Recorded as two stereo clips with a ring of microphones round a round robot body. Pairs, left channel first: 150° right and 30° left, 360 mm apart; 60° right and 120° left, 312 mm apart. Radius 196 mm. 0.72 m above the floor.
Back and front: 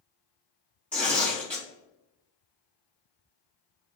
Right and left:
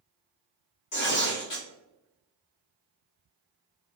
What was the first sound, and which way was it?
Tearing paper, 65° right.